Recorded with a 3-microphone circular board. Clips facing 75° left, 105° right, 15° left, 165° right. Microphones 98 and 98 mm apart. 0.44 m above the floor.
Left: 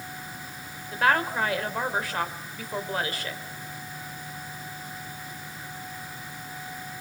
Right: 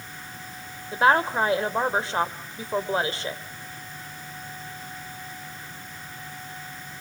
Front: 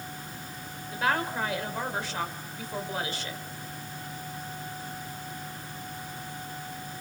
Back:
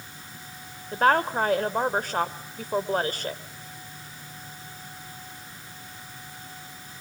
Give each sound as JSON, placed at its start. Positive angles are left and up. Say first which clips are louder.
{"t": 0.9, "sound": "a woman speaking", "louder": "right 4 dB, back 7 dB", "azimuth_deg": -155, "distance_m": 1.9}